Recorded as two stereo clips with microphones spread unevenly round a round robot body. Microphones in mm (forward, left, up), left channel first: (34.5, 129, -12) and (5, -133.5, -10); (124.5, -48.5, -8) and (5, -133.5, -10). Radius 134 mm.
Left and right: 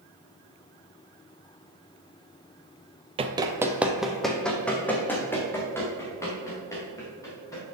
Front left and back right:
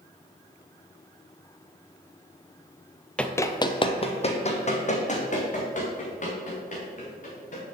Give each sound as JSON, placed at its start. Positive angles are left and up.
{"t": 3.2, "sound": "running footsteps", "azimuth_deg": -45, "distance_m": 0.8}